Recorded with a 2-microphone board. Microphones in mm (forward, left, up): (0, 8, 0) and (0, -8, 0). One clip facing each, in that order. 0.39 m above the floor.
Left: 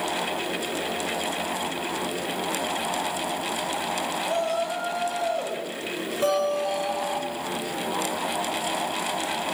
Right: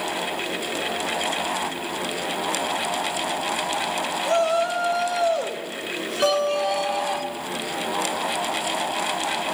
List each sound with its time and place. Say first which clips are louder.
4.2 s a shout: right 7 dB; 75° right (ahead or behind), 4.5 m
6.2 s a guitar: right 3 dB; 30° right (ahead or behind), 2.5 m